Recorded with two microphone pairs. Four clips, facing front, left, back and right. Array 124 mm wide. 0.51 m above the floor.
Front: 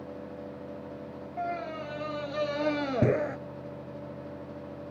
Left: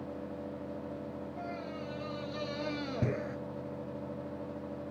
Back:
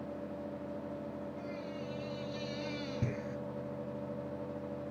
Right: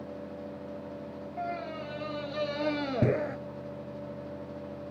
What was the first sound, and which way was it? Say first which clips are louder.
A scream: right 8 dB, front 8 dB; 25° right.